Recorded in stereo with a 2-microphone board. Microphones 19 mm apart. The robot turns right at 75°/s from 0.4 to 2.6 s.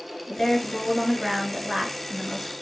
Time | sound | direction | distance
0.3 | a woman speaking | 130° left | 1.3 m